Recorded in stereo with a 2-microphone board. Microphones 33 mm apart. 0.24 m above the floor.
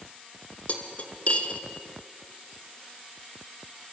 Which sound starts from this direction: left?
Cutlery clinking, at 0.7 s.